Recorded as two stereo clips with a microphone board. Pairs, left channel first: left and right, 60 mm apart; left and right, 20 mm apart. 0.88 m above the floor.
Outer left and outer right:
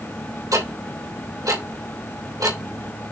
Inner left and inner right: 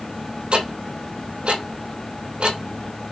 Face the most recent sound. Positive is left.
turn(degrees=-75)  # may be behind; listen again after turning